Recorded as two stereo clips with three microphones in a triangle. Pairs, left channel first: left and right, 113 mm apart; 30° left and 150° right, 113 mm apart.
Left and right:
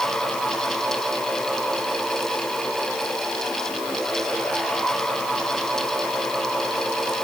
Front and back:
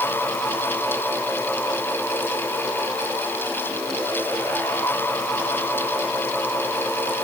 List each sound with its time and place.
Only background noise.